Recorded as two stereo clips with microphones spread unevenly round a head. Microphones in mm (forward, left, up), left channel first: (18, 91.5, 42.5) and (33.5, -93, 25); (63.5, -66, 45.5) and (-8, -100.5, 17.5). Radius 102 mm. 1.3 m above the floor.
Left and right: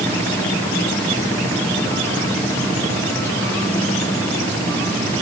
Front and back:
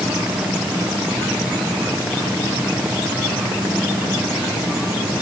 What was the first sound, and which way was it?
Only background noise.